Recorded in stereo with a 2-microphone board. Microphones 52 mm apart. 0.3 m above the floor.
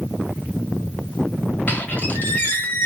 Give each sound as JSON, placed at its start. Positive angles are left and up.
{"t": 1.7, "sound": "a squeak", "side_deg": 35, "distance_m": 1.1}